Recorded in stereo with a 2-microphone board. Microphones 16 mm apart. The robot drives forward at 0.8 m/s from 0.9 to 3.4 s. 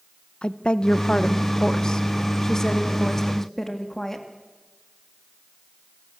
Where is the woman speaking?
70° left (ahead or behind), 1.1 m; by 4.3 s 25° left (ahead or behind), 2.5 m.